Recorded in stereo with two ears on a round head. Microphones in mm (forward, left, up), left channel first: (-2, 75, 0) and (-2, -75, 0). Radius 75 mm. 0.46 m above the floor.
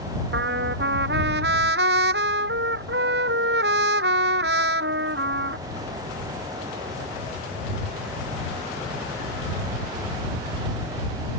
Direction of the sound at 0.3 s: 70° right (ahead or behind).